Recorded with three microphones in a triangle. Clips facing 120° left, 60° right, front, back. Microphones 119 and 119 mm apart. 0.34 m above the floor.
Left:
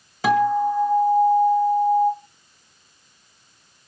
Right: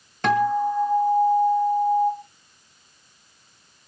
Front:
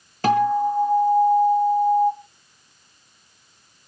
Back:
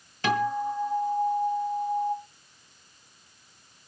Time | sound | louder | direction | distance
0.2 | a guitar | left 2 dB, front 8 dB | 40° left | 1.9 m